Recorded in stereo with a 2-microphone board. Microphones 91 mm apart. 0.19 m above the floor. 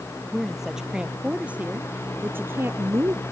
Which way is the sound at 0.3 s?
Centre (ahead or behind).